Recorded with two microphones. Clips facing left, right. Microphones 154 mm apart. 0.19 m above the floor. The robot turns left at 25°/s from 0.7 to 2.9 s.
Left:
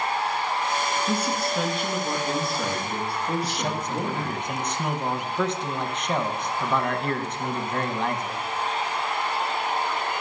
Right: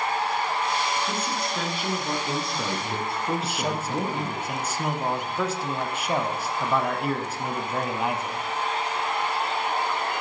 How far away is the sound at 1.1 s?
About 2.5 m.